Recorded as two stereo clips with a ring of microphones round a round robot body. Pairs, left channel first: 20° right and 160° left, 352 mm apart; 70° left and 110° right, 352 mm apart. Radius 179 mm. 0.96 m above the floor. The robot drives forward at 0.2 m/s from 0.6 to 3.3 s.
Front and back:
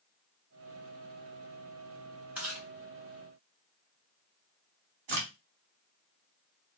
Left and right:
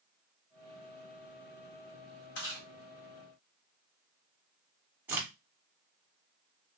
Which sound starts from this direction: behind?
A crack, at 5.1 s.